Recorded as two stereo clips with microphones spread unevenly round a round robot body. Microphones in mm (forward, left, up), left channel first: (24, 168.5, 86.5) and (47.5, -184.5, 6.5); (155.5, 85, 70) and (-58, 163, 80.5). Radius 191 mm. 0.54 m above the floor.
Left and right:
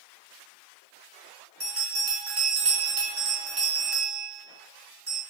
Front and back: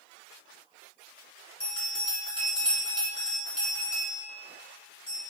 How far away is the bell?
About 1.4 m.